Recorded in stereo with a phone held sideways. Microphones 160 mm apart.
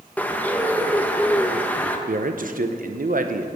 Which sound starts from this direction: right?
A man speaking, at 2.1 s.